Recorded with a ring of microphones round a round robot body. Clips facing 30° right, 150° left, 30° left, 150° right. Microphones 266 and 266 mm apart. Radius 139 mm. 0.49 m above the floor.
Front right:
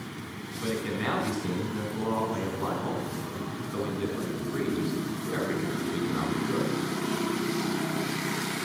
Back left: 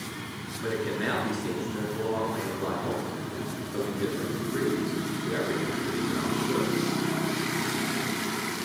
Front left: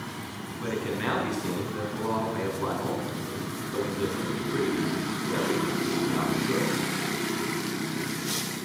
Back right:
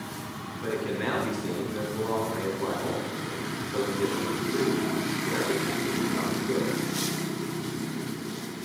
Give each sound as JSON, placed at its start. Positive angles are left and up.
{"t": 0.6, "sound": "a man speaking", "azimuth_deg": -35, "distance_m": 6.0}